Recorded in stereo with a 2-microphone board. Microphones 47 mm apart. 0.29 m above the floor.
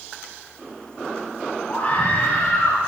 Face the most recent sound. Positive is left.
turn(degrees=45)  # may be behind; listen again after turning